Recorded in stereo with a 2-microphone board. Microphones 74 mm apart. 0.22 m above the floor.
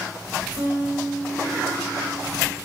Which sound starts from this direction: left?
A guitar, at 0.6 s.